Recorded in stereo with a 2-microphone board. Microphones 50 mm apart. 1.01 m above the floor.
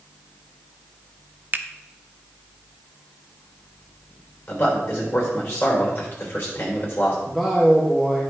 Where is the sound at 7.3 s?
Centre (ahead or behind), 1.1 m.